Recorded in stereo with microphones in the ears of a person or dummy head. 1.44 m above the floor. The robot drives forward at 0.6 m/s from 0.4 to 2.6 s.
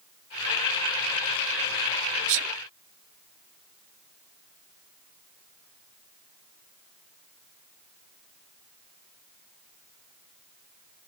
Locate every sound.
2.3 s a sneeze: 70° right (ahead or behind); by 2.5 s 75° right (ahead or behind)